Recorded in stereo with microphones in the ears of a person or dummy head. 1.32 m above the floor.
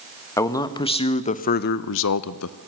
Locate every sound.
0.4 s a man speaking: 15° left (ahead or behind), 1.4 m; by 2.6 s 70° left (ahead or behind), 0.8 m